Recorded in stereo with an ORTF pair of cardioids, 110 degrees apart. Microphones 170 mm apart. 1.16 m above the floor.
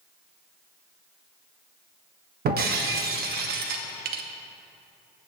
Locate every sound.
2.5 s breaking glass: 70° right, 1.0 m